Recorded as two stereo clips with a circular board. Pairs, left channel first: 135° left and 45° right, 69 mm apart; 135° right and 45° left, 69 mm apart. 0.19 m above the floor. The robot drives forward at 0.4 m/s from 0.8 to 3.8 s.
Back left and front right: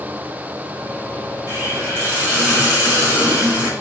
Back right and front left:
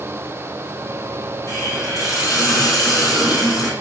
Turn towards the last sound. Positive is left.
turn(degrees=-110)